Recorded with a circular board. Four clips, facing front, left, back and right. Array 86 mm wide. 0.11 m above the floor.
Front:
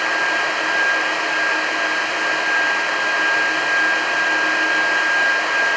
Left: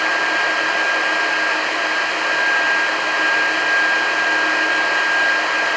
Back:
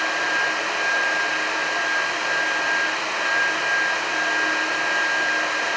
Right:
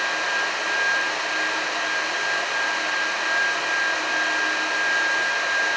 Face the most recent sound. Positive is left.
No sound to turn to.